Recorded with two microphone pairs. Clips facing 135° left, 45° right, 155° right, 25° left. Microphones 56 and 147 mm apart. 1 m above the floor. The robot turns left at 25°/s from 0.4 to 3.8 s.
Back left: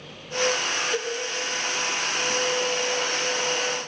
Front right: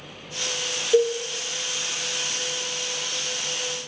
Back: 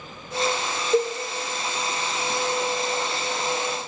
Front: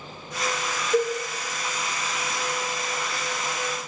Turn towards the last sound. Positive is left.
turn(degrees=-155)